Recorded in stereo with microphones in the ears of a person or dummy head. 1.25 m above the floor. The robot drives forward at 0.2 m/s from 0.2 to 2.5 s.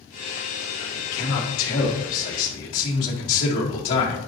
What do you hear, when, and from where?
0.8 s a man speaking: 70° left (ahead or behind), 2.0 m; by 4.2 s 65° left (ahead or behind), 2 m